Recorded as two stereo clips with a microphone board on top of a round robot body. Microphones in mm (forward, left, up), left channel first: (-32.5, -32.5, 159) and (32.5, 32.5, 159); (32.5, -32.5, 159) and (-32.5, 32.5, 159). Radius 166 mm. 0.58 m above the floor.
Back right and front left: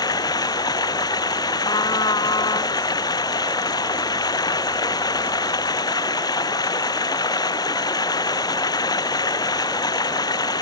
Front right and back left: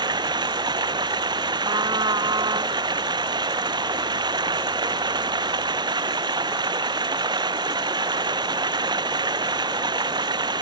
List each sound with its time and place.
0.0 s running water: straight behind
1.6 s a trumpet: straight behind